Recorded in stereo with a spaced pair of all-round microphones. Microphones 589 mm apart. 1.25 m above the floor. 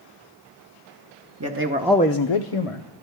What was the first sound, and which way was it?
A man speaking, 30° right (ahead or behind).